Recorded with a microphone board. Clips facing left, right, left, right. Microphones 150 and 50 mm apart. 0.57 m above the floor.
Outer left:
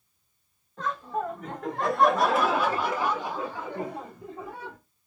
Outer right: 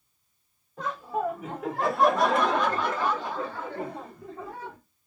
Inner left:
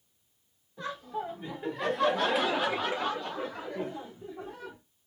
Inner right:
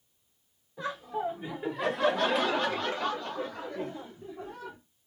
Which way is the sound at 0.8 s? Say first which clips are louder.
Outer right 1 dB, inner right 3 dB; 10° right (ahead or behind).